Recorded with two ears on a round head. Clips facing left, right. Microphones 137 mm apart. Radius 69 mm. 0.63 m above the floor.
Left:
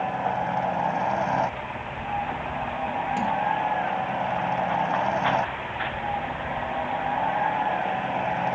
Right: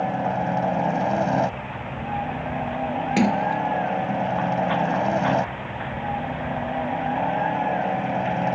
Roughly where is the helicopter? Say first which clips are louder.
Right 2 dB; right.